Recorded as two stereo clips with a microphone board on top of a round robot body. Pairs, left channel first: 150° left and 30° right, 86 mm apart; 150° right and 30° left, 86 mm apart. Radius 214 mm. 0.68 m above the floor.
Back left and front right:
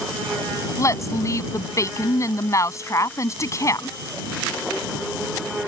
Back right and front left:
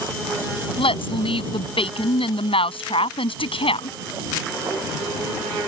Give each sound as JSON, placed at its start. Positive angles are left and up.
{"t": 0.8, "sound": "a woman speaking", "azimuth_deg": -155}